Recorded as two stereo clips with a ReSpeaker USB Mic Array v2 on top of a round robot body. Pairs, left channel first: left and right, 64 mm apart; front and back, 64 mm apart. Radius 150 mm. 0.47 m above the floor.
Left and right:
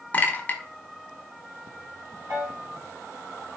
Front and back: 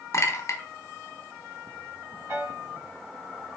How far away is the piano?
About 2.0 m.